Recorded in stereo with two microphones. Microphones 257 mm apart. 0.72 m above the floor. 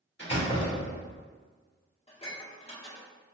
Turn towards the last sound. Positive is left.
turn(degrees=25)  # may be behind; listen again after turning